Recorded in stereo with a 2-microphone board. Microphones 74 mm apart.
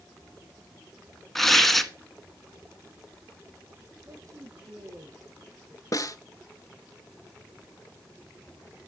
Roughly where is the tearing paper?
Centre.